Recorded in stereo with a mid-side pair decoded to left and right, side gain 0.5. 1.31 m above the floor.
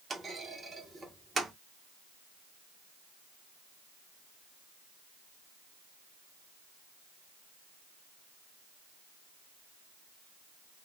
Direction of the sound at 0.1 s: 25° right.